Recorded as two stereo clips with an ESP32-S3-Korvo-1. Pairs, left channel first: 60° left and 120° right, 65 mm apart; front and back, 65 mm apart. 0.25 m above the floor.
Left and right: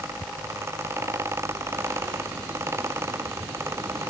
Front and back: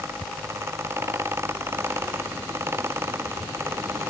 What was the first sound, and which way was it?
Only background noise.